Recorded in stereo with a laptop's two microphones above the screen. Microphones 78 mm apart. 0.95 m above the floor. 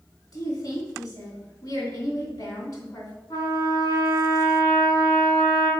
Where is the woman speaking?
55° left (ahead or behind), 2.5 m.